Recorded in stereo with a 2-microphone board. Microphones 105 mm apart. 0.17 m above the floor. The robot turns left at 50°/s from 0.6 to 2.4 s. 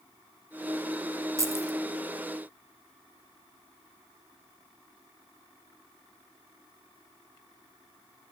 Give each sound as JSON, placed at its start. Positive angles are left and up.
{"t": 1.4, "sound": "keys jangling", "side_deg": -30, "distance_m": 0.7}